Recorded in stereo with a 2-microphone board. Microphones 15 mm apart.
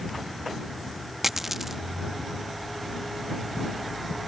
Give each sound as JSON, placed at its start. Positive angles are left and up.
{"t": 1.2, "sound": "a dropped coin", "side_deg": -15}